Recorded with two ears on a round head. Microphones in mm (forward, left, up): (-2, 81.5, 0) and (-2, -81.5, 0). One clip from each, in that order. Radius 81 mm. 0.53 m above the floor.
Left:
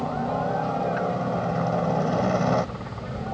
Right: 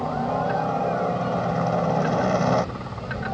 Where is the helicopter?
10° right (ahead or behind).